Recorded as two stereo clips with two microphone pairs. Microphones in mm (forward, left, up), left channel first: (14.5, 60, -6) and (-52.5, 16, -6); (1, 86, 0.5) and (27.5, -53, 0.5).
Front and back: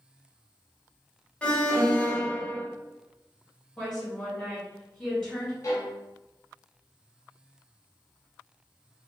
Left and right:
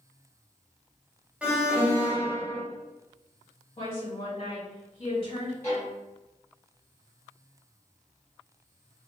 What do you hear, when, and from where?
1.4 s an alarm: 5° right, 0.5 m
3.8 s a woman speaking: 105° left, 1.8 m
5.6 s a violin: 35° left, 1.1 m